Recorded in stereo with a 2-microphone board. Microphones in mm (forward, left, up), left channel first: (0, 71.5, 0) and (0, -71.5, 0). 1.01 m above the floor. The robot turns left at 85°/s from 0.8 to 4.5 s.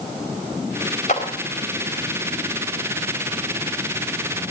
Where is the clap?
55° left (ahead or behind), 4 m; by 1.2 s 45° left (ahead or behind), 4 m.